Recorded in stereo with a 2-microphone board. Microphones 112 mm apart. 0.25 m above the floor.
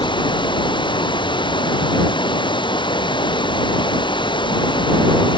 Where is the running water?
45° left (ahead or behind).